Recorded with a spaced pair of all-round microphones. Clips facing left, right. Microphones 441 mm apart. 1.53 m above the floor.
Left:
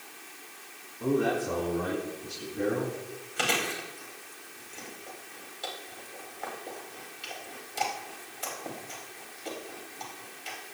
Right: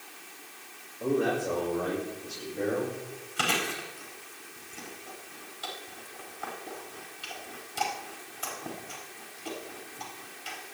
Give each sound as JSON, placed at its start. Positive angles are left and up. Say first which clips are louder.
{"t": 1.0, "sound": "a man speaking", "louder": "even", "side_deg": 20, "distance_m": 6.0}
{"t": 3.4, "sound": "chewing", "louder": "left 1 dB", "side_deg": -35, "distance_m": 4.0}